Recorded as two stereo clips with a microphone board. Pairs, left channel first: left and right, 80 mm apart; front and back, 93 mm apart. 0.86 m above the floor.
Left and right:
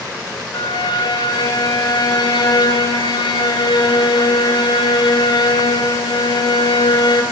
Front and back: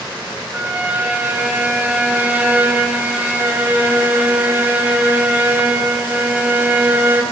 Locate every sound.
0.5 s a violin: 110° left, 4.5 m